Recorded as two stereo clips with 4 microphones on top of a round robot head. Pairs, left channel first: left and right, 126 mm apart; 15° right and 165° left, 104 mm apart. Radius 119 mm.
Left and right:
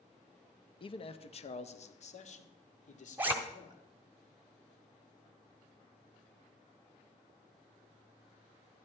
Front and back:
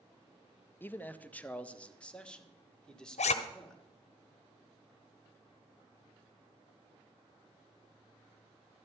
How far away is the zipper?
About 0.9 m.